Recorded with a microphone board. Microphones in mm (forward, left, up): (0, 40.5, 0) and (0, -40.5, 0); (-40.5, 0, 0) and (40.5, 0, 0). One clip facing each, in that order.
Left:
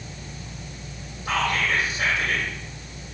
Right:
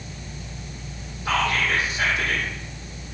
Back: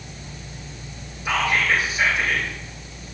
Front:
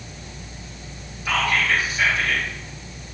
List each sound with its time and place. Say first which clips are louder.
1.2 s whispering: right 1 dB, even; 100° right, 4 m